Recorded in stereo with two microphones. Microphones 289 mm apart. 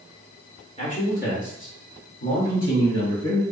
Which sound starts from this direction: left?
A man speaking, at 0.8 s.